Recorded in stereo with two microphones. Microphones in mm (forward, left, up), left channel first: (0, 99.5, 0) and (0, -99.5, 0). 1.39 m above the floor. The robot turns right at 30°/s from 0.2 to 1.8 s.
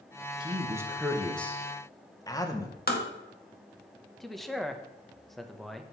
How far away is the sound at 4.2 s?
About 0.9 m.